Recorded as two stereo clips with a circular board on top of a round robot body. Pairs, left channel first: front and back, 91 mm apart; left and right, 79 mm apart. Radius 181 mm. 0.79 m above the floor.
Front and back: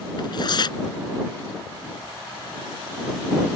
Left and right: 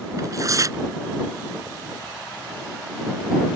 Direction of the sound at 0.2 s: 40° right.